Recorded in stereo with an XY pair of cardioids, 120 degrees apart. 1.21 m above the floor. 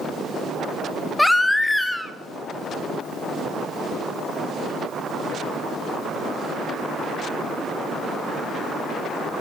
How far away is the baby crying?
About 0.7 m.